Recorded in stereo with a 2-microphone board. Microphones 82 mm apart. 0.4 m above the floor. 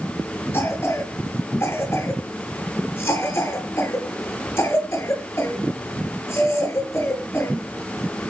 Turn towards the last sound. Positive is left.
turn(degrees=30)  # may be behind; listen again after turning